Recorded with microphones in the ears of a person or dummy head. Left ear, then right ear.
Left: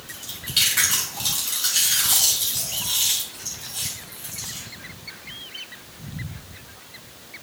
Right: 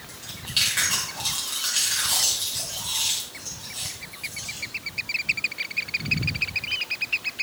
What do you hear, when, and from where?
0.1 s chewing: 10° right (ahead or behind), 2.5 m